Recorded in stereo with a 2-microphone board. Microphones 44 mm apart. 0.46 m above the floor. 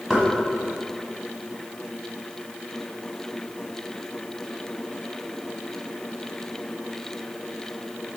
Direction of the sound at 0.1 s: 15° right (ahead or behind).